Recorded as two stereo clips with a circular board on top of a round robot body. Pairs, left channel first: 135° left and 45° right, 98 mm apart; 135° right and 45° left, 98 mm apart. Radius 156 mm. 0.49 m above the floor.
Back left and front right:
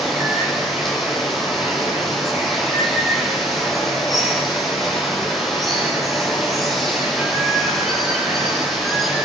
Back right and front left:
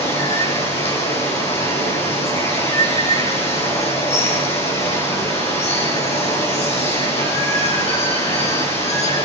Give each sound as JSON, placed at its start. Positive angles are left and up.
{"t": 0.0, "sound": "running water", "azimuth_deg": -140, "distance_m": 7.0}